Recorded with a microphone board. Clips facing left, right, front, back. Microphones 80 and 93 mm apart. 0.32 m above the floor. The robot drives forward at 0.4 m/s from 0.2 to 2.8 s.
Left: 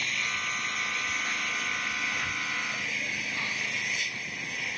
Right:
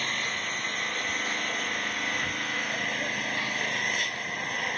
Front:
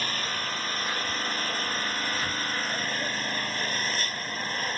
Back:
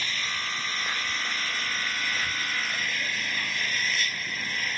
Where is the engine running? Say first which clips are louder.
Right 1 dB, front 2 dB; 45° right; by 4.8 s 55° right.